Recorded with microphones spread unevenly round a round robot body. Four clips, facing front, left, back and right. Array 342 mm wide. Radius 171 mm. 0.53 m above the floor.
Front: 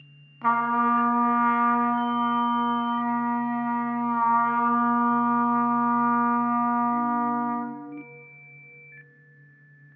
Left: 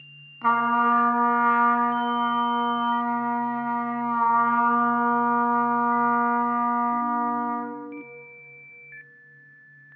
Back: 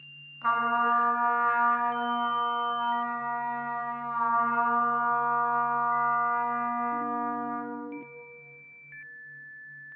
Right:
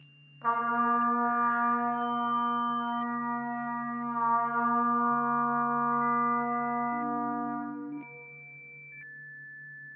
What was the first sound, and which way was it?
A trumpet, 50° left.